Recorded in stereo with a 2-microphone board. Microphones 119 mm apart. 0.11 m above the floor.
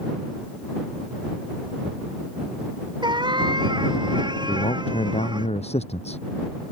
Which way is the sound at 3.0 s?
40° right (ahead or behind).